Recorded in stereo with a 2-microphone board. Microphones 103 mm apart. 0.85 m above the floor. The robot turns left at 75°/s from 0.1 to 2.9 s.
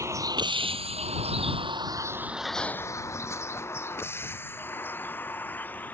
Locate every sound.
0.0 s a vehicle: 30° right (ahead or behind); by 5.9 s 15° left (ahead or behind)